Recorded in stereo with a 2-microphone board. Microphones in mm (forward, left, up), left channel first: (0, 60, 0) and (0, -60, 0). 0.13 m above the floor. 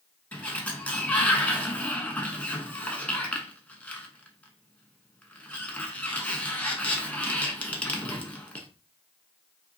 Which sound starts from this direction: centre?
A sliding door, at 0.3 s.